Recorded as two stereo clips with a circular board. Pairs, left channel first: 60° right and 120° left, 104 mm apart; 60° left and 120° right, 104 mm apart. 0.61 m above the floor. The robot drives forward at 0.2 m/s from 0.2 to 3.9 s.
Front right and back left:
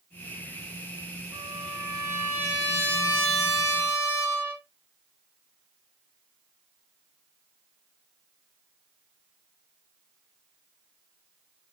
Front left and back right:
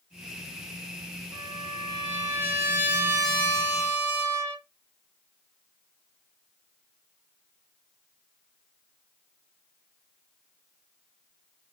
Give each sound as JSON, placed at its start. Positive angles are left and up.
{"t": 1.3, "sound": "a trumpet", "azimuth_deg": 175, "distance_m": 1.1}